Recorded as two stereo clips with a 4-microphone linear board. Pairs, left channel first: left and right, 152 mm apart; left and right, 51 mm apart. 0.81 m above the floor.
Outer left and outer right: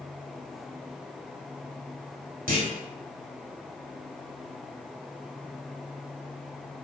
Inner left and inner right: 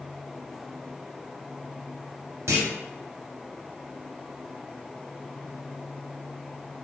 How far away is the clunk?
About 0.9 m.